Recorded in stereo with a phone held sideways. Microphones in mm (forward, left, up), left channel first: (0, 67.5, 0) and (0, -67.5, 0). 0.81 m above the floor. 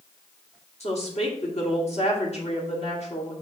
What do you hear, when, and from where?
0.8 s a woman speaking: 55° left (ahead or behind), 2 m